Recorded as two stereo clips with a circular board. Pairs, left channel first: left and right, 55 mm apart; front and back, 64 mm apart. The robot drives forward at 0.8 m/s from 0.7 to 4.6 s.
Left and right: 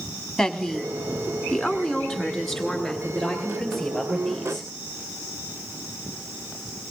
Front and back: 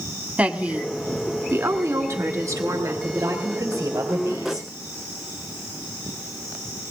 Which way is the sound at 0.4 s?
155° left.